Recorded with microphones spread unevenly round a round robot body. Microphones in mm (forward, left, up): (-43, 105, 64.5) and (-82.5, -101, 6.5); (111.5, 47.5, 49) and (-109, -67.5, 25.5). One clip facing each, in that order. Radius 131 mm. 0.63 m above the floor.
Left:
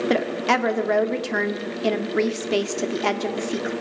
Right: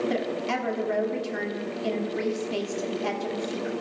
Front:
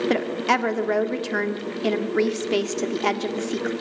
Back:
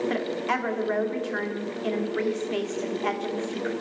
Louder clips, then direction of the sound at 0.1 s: Left 5 dB, front 5 dB; 50° left.